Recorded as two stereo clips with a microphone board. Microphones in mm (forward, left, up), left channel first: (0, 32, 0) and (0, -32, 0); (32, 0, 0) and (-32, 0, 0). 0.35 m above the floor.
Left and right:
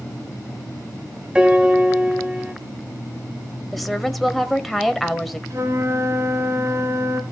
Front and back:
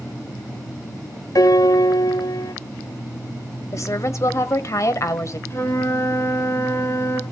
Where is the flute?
50° right, 2 m.